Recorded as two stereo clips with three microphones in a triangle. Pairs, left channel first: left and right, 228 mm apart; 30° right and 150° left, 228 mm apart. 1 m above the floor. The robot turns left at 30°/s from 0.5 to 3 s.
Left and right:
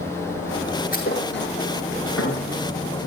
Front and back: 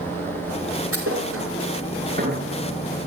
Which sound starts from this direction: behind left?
A thud, at 0.9 s.